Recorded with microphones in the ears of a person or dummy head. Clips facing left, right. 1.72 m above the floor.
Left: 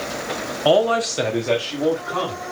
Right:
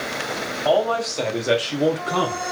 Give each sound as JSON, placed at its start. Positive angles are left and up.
{"t": 0.7, "sound": "a man speaking", "side_deg": 50, "distance_m": 1.0}